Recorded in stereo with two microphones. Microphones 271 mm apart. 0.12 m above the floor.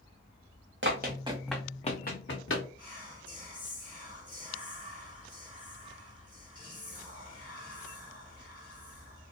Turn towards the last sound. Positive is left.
turn(degrees=-30)  # may be behind; listen again after turning